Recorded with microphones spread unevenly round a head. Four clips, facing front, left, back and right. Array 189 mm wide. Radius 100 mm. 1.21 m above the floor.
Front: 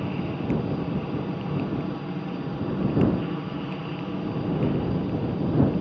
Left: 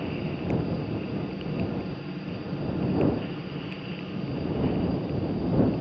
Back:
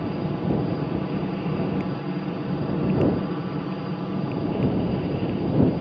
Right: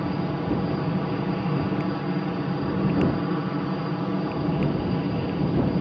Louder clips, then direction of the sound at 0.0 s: Right 4 dB, back 2 dB; 125° right.